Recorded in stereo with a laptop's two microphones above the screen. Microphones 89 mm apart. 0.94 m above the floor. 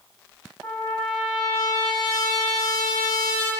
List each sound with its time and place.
0.6 s a trumpet: 45° left (ahead or behind), 1.3 m